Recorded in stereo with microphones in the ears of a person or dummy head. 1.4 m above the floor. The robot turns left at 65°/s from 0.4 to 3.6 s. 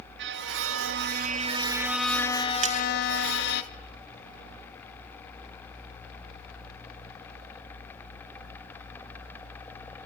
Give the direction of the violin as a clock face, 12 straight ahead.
2 o'clock.